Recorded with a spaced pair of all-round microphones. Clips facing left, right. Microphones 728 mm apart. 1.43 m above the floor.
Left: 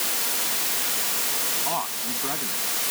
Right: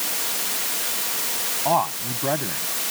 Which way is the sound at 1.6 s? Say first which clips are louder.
Right 10 dB; 80° right.